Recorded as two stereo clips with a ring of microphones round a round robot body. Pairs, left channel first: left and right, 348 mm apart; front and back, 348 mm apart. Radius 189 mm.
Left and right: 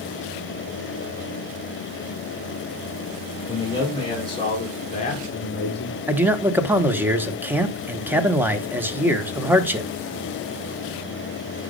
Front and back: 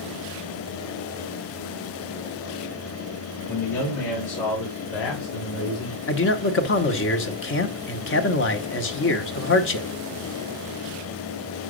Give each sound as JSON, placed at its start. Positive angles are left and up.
{"t": 3.5, "sound": "a man speaking", "azimuth_deg": 15, "distance_m": 3.5}
{"t": 6.1, "sound": "a man speaking", "azimuth_deg": -10, "distance_m": 1.0}